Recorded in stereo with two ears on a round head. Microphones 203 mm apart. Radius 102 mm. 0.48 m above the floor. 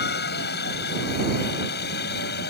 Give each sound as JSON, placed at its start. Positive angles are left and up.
{"t": 0.0, "sound": "a helicopter", "side_deg": 45}